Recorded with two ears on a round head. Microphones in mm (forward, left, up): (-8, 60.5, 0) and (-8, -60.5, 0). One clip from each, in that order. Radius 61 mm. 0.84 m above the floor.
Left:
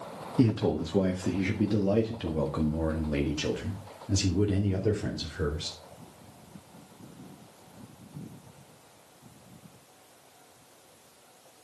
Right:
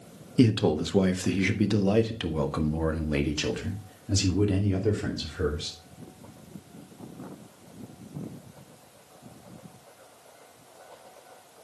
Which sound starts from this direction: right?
A man speaking, at 0.4 s.